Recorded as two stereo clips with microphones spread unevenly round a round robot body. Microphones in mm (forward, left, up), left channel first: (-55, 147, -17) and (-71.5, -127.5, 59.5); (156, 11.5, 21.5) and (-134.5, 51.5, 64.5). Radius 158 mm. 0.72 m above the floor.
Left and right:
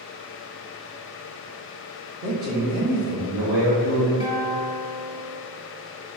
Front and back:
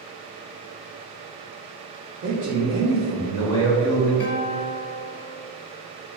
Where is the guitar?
5° right, 1.3 m.